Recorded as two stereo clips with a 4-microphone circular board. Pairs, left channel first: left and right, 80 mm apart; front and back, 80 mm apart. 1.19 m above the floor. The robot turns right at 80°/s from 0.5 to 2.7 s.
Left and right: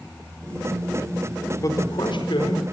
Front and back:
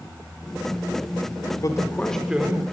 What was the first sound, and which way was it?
A man speaking, 40° left.